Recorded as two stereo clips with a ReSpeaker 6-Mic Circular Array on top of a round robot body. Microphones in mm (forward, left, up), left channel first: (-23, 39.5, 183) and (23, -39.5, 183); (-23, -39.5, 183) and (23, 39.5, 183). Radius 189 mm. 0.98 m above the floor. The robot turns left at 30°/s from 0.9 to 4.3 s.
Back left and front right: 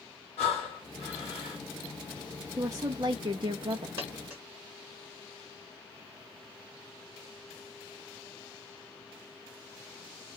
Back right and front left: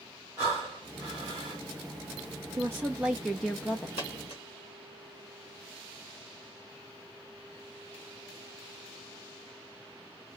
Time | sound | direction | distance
0.4 | breathing | 125° left | 0.9 m
2.6 | a woman speaking | straight ahead | 0.7 m
4.0 | a dropped coin | 115° right | 0.8 m